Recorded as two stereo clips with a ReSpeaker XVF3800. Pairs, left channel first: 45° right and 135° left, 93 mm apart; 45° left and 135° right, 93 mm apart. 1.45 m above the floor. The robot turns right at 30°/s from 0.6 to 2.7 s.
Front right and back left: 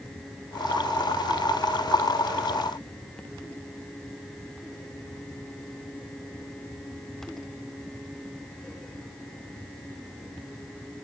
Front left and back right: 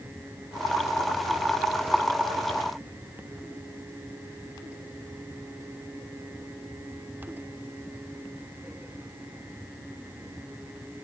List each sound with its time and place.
Only background noise.